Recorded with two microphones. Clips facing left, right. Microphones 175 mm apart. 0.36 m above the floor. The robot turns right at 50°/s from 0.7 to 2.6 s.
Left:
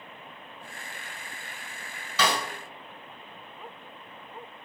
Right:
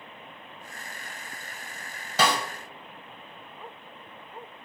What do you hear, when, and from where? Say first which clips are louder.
2.2 s a snare drum: right 2 dB; 45° right (ahead or behind), 1.1 m; by 2.4 s 40° right (ahead or behind), 1.1 m